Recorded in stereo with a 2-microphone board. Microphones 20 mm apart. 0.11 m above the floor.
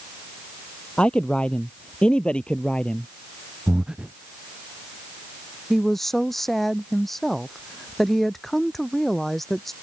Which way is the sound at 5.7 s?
10° left (ahead or behind).